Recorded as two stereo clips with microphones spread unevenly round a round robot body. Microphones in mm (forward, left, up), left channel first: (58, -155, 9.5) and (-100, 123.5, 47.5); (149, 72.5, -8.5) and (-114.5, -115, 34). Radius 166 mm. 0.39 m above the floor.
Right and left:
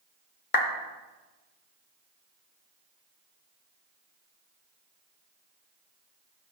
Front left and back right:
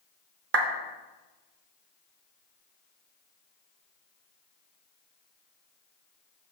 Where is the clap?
95° right, 0.7 m.